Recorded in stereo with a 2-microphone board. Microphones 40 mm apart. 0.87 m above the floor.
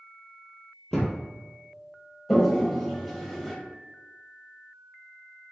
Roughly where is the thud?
Centre.